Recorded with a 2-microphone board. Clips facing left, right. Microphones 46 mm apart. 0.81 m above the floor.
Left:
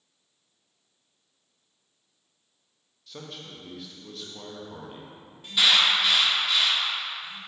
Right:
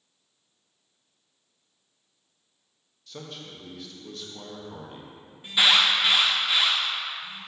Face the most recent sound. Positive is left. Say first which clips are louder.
# right 1 dB
turn(degrees=-20)  # may be behind; listen again after turning